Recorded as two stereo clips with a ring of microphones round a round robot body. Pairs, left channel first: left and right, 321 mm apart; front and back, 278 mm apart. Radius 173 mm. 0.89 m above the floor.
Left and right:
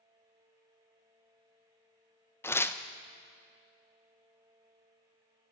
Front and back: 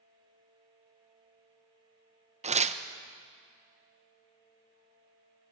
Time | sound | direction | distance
2.4 | tearing paper | 160° left | 0.9 m